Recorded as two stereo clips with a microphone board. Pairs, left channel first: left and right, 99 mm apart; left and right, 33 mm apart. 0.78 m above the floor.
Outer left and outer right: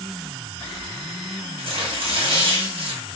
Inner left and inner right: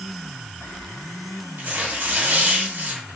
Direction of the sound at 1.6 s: 65° right (ahead or behind).